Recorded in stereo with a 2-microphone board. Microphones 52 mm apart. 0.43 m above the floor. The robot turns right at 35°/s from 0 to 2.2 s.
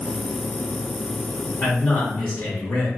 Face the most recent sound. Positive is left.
turn(degrees=45)  # may be behind; listen again after turning